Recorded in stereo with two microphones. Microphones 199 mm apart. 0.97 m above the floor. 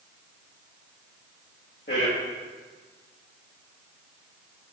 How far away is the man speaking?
About 1.4 m.